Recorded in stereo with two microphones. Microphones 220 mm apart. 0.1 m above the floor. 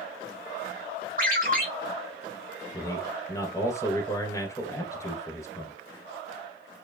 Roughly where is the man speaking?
Centre.